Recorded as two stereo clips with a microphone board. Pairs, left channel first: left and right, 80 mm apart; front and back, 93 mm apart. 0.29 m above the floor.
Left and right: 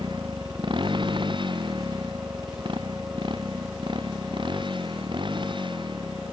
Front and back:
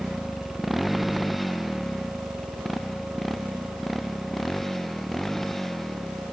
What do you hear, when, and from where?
0.0 s a motorcycle: 90° right; by 6.3 s 85° right